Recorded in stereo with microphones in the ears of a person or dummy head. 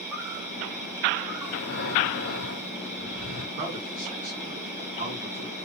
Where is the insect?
10° right (ahead or behind), 2.5 m.